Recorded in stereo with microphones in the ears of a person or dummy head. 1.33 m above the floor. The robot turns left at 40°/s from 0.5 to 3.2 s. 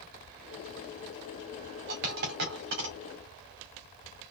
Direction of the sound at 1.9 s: 60° right (ahead or behind).